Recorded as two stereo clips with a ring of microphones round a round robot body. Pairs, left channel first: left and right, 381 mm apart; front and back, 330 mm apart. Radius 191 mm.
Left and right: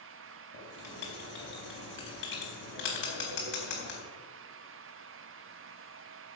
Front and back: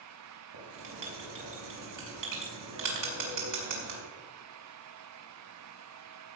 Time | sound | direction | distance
0.5 | writing | 155° left | 4 m